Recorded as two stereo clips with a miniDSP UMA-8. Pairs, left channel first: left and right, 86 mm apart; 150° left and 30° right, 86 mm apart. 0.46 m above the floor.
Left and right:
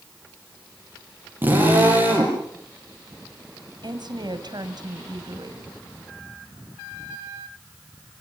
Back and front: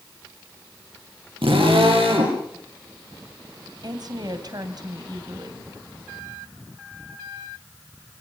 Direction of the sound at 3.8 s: 65° right.